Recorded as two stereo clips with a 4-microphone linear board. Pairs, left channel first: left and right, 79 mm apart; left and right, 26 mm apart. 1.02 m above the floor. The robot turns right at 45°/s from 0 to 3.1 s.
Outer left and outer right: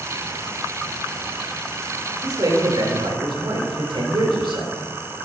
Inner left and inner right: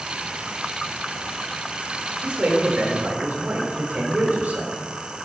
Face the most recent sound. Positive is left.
turn(degrees=-90)